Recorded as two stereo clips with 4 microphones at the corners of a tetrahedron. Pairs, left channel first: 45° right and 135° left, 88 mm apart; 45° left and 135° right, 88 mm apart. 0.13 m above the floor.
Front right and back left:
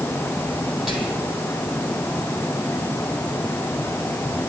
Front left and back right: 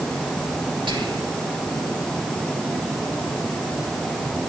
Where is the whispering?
140° right, 2.5 m.